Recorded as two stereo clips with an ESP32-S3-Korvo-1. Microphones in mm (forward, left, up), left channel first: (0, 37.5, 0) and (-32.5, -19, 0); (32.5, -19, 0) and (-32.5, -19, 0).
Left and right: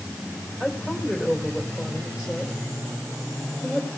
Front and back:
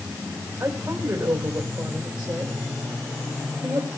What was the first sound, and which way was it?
A woman speaking, 155° left.